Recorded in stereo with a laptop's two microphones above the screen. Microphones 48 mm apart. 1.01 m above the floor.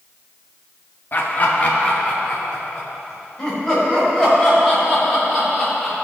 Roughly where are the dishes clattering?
No dishes clattering in this recording.